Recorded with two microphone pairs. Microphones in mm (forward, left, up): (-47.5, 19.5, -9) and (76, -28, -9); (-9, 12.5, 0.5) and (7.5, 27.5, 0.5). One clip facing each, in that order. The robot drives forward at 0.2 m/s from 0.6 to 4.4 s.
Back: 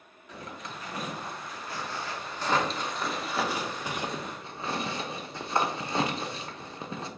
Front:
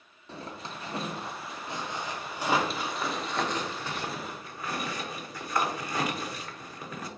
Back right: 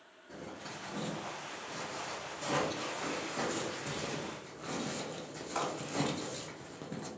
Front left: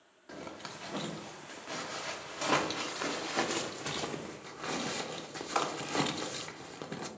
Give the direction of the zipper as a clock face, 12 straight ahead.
11 o'clock.